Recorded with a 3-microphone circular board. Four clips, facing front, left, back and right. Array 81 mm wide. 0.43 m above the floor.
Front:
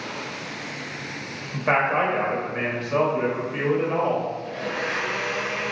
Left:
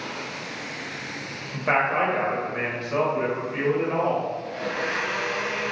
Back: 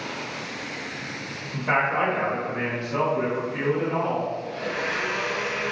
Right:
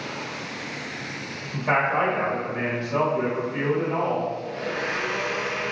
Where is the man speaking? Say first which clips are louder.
Even, front 2 dB; 25° left, 1.3 m.